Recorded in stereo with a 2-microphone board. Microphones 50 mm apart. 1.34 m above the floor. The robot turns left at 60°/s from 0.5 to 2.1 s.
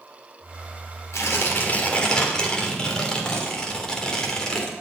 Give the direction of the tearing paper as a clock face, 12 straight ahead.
9 o'clock.